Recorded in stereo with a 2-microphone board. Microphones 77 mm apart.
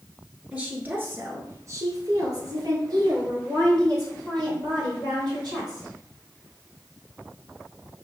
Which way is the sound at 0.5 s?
15° right (ahead or behind).